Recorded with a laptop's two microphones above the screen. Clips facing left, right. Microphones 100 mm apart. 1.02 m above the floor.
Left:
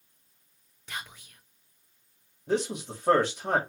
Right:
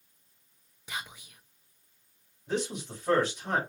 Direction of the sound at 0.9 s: 10° right (ahead or behind).